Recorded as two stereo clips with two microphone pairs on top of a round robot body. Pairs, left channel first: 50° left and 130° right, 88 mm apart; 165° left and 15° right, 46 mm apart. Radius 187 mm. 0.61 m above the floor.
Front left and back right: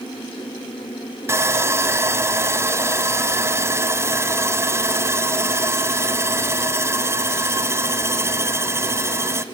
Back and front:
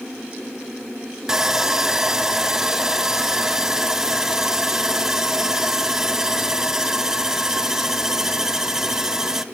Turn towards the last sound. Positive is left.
turn(degrees=-105)